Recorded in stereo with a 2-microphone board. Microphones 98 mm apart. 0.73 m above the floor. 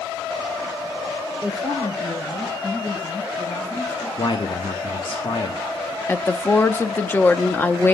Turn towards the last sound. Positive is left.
turn(degrees=20)  # may be behind; listen again after turning